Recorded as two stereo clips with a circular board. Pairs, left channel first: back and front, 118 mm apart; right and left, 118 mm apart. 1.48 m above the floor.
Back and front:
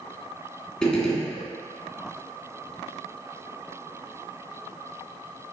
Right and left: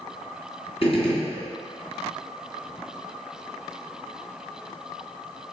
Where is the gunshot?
95° right, 2.5 m.